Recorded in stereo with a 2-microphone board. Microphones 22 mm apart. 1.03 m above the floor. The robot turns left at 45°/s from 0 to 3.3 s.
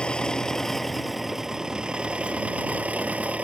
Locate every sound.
0.0 s an engine running: 45° left; by 3.4 s 105° right